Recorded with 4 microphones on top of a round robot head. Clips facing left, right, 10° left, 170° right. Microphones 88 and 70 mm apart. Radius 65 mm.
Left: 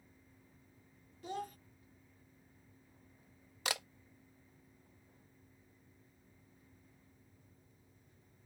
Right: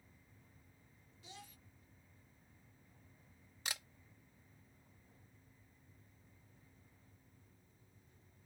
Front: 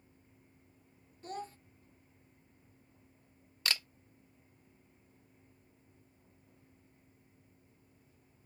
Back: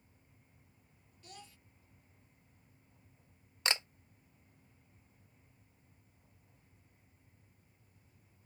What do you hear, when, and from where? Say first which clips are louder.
1.2 s a child speaking: left 15 dB, front 13 dB; 55° left
3.6 s a camera shutter: left 8 dB, back 2 dB; 125° left